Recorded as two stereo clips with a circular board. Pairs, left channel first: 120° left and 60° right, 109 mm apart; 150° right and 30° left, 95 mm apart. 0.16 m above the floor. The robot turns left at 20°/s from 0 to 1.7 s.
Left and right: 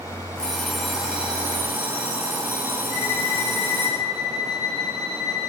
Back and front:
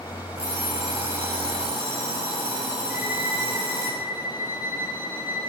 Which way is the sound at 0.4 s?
40° left.